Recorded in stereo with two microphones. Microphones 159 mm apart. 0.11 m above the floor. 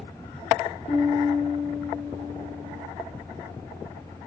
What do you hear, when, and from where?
0.9 s a piano: 45° left (ahead or behind), 0.5 m